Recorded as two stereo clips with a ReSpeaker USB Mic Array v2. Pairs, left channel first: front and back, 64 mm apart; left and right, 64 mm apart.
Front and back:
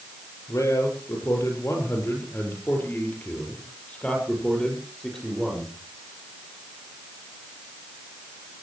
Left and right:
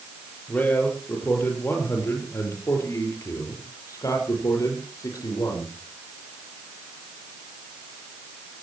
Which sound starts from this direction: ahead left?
A man speaking, at 0.5 s.